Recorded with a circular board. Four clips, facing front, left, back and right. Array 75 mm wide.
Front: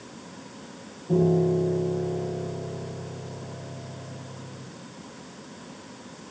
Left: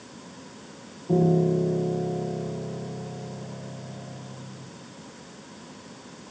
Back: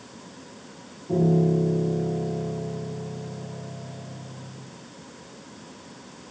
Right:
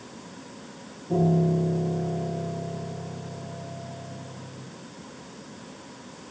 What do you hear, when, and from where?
1.1 s a piano: 90° left, 6 m